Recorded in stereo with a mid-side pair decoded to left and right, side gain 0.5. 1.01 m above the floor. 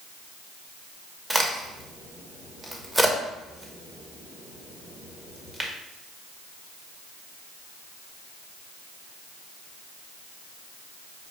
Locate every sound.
1.3 s a crack: 15° right, 0.9 m